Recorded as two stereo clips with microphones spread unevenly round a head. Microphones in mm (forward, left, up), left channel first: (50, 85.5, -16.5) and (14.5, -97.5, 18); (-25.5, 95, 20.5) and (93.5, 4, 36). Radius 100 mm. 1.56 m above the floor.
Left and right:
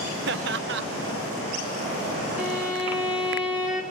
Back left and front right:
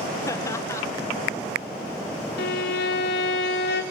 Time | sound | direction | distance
0.3 | laughter | 140° right | 1.4 m
2.4 | a violin | 175° left | 3 m